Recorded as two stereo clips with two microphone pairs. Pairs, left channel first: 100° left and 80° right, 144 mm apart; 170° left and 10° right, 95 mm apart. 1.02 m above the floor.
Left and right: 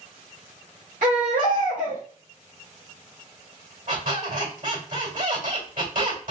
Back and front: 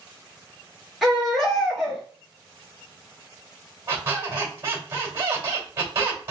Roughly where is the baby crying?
Right.